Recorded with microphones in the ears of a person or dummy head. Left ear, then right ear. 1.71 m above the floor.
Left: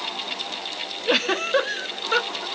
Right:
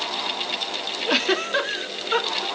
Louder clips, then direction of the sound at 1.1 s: Left 1 dB; 15° left (ahead or behind).